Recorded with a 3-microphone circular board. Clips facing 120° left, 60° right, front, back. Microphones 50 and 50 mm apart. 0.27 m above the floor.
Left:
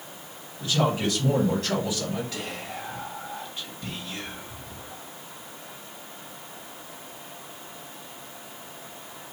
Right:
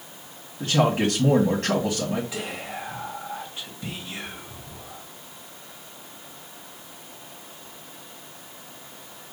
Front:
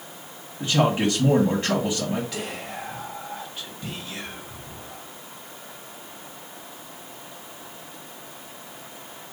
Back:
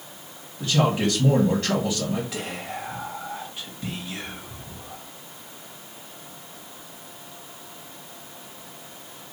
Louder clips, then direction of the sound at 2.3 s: Right 2 dB, even; 105° right.